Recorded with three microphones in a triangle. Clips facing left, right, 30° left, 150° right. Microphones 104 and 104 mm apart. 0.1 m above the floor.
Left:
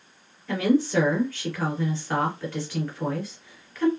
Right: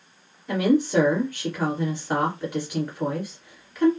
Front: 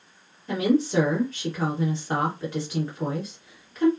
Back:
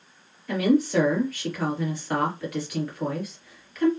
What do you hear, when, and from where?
0.5 s a woman speaking: 20° right, 2.5 m